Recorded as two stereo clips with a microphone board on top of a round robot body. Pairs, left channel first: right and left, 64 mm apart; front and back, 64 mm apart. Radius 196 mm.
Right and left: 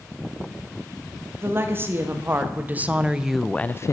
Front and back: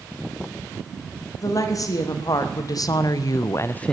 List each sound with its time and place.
1.4 s a woman speaking: 35° left, 1.9 m; by 3.9 s 80° right, 0.5 m